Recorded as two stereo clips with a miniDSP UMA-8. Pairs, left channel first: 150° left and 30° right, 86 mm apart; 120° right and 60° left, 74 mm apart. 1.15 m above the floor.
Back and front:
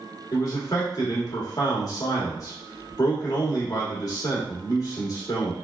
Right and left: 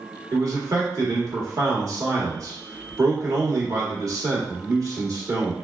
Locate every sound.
0.3 s a man speaking: 105° left, 1.2 m